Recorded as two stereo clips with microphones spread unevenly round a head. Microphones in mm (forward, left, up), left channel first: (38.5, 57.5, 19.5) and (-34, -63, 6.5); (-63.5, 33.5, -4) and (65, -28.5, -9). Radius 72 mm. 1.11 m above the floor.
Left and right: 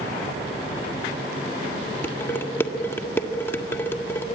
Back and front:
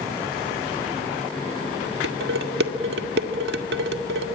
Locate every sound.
2.0 s dishes clattering: 15° right, 1.7 m